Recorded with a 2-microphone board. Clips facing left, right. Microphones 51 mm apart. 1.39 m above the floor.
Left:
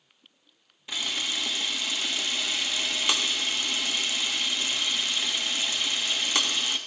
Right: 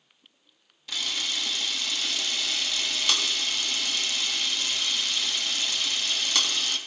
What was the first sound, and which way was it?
A camera shutter, 25° left (ahead or behind).